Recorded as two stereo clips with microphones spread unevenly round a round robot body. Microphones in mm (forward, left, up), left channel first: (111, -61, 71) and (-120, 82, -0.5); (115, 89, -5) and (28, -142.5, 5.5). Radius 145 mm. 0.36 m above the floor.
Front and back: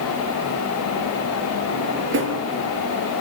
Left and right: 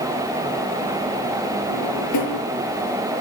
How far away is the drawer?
About 4.5 m.